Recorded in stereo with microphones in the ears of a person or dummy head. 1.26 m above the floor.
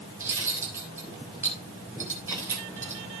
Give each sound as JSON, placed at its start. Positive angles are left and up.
{"t": 0.2, "sound": "cutlery clinking", "side_deg": -15, "distance_m": 3.0}